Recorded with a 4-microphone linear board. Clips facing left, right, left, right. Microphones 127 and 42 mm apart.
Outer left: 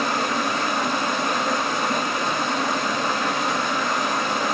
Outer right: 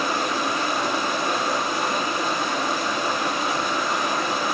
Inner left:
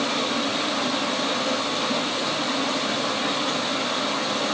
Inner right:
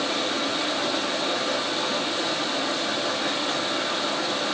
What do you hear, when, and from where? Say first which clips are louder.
0.0 s running water: outer left 1 dB, inner left 1 dB; 70° left (ahead or behind), 5 m